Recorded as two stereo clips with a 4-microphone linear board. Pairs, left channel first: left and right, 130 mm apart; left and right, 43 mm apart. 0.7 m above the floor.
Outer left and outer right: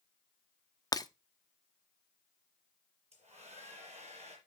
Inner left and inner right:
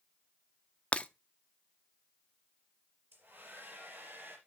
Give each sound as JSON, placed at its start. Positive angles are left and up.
{"t": 0.9, "sound": "breaking glass", "side_deg": 30, "distance_m": 0.5}
{"t": 3.1, "sound": "a hair dryer", "side_deg": -55, "distance_m": 4.5}